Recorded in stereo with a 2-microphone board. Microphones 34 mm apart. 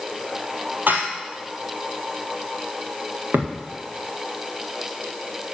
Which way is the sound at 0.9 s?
70° right (ahead or behind).